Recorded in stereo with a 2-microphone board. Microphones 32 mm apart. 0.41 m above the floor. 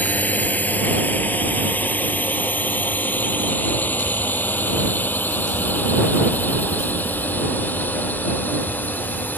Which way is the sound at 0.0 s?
55° left (ahead or behind).